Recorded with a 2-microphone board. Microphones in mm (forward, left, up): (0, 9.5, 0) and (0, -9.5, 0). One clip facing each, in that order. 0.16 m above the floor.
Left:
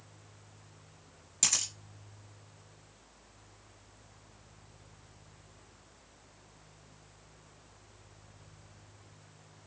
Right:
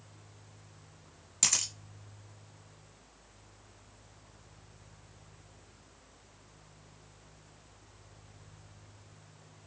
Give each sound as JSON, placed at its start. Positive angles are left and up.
{"t": 1.4, "sound": "a camera shutter", "side_deg": -15, "distance_m": 1.7}